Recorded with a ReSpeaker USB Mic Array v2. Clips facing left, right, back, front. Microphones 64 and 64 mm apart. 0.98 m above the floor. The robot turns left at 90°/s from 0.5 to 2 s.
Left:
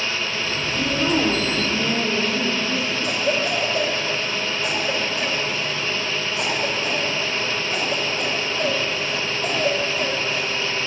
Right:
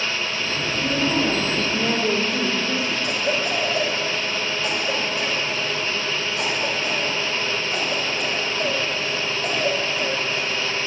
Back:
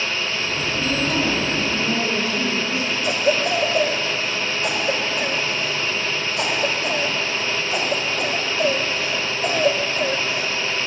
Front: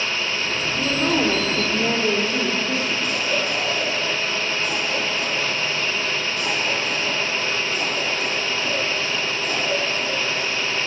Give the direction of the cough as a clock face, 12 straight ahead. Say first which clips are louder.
Left 3 dB, back 4 dB; 7 o'clock.